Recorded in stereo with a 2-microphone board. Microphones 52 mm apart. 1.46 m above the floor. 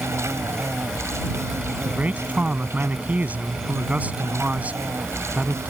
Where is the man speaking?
30° right (ahead or behind).